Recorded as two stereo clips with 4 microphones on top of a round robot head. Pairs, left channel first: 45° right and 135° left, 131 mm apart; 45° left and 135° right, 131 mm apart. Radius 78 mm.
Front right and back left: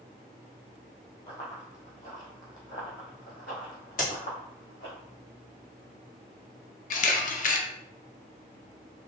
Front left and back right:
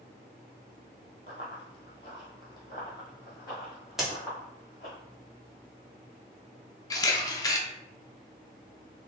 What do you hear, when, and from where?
1.3 s running footsteps: straight ahead, 1.7 m; by 5.0 s 25° right, 3.5 m
4.0 s a crack: 50° right, 1.6 m
6.9 s a camera shutter: 20° right, 0.6 m